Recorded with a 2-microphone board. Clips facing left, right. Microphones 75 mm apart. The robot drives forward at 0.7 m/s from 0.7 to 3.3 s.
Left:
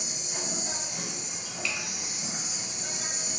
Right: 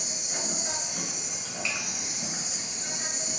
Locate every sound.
0.0 s an insect: 70° right (ahead or behind), 1.2 m; by 3.4 s 40° right (ahead or behind), 1.8 m
1.6 s a finger snap: 25° right (ahead or behind), 0.9 m; by 1.8 s 20° right (ahead or behind), 1.0 m